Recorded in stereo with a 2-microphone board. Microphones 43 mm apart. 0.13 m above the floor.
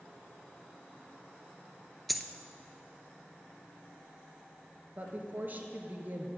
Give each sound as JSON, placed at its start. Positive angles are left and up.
{"t": 2.1, "sound": "a dropped coin", "side_deg": 0, "distance_m": 0.6}
{"t": 5.0, "sound": "a woman speaking", "side_deg": -45, "distance_m": 1.7}